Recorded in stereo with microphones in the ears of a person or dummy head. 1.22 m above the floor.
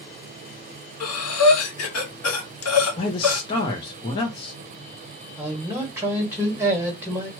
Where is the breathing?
80° left, 1.5 m.